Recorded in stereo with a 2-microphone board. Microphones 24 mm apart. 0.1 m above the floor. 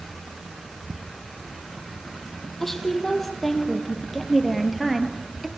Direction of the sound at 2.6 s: 15° left (ahead or behind).